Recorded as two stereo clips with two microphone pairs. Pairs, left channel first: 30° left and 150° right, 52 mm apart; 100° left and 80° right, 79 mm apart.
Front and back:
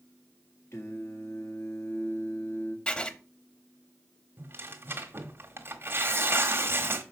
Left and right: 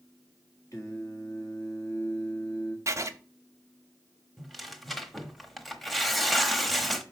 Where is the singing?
50° left, 1.6 m.